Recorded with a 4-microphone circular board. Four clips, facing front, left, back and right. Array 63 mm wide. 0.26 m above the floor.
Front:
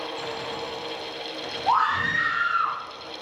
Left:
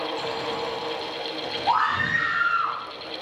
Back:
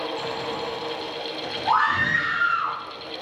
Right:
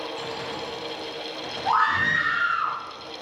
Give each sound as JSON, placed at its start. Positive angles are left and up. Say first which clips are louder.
{"t": 1.6, "sound": "a scream", "louder": "right 1 dB, back 1 dB", "azimuth_deg": -145, "distance_m": 3.5}